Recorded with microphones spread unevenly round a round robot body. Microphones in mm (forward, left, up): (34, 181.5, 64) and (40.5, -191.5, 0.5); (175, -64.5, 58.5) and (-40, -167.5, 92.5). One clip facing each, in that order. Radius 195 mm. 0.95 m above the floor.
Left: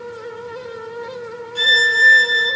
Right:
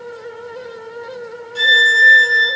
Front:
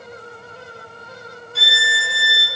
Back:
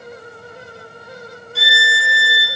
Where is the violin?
60° right, 1.1 m.